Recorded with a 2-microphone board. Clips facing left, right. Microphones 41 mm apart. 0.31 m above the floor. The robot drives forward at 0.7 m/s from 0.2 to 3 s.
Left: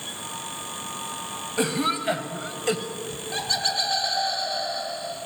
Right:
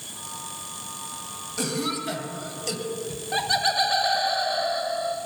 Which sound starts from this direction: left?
A cough, at 1.6 s.